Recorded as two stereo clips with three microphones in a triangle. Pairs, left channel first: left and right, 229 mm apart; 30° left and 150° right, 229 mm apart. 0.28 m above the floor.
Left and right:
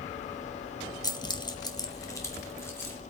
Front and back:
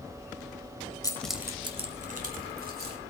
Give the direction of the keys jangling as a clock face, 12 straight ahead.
10 o'clock.